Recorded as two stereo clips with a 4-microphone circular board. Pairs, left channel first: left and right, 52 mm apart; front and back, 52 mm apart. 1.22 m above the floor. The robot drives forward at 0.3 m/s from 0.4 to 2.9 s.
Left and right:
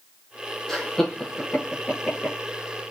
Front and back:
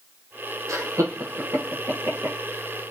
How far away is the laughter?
About 1.0 m.